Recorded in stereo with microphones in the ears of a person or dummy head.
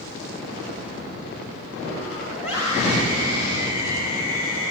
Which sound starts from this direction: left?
A scream, at 2.4 s.